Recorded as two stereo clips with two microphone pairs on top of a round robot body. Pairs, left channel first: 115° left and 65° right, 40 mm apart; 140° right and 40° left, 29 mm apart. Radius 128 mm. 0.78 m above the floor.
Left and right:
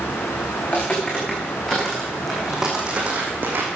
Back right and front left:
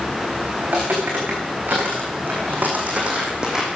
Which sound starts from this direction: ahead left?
Footsteps, at 0.6 s.